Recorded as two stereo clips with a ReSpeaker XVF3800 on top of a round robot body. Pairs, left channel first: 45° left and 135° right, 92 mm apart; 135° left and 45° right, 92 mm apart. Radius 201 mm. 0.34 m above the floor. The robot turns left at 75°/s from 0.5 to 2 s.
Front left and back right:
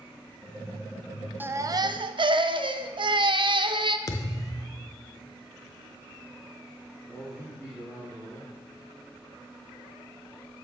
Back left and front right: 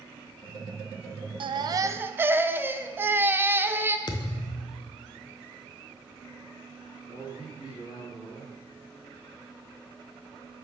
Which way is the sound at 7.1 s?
140° left.